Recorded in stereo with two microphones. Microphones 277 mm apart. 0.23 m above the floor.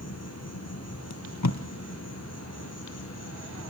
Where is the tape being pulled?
85° left, 1.3 m.